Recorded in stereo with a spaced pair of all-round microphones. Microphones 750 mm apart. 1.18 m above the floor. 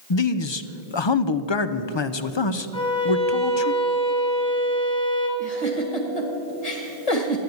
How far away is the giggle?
About 2 m.